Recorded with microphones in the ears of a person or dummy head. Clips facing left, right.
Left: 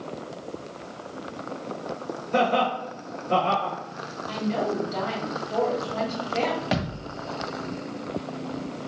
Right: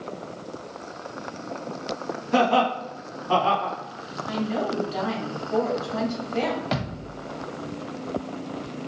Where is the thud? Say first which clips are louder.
Left 1 dB; 10° left (ahead or behind), 1.1 m.